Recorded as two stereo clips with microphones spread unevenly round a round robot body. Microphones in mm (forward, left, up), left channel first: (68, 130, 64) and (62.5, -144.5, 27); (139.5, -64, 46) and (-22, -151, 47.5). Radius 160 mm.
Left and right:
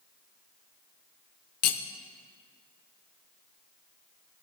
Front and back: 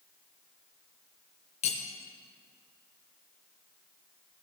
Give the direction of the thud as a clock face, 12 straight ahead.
No thud in this recording.